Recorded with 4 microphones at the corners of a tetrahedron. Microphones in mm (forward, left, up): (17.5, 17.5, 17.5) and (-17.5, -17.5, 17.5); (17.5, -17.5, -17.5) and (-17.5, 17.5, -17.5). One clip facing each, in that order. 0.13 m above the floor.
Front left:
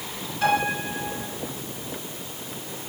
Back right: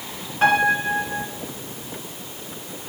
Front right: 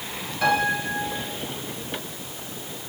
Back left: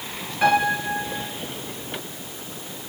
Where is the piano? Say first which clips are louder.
Back right 6 dB, back left 3 dB; 165° right, 2.5 m.